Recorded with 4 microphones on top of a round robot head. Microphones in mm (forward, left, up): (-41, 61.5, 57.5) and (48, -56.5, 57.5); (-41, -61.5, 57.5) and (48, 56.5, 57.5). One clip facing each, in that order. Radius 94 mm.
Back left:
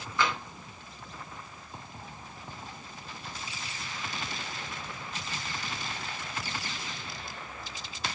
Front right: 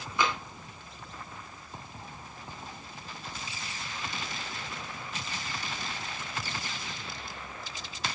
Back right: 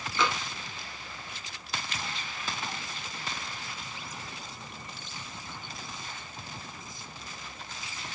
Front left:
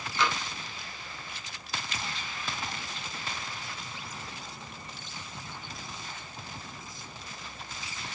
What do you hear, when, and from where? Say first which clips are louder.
0.2 s tapping: even, even; 125° right, 2.5 m